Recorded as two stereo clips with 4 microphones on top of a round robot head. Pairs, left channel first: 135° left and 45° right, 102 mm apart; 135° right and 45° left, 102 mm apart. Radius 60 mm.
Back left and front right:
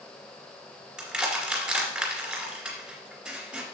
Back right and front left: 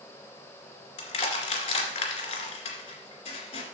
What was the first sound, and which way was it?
Crushing, 125° right.